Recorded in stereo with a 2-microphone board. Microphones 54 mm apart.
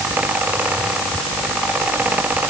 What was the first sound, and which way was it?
Only background noise.